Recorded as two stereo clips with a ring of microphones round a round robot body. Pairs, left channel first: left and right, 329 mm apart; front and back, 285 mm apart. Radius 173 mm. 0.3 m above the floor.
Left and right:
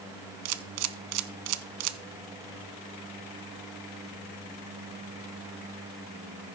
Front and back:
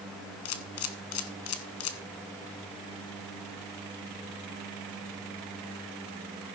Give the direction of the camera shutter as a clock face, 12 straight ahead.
2 o'clock.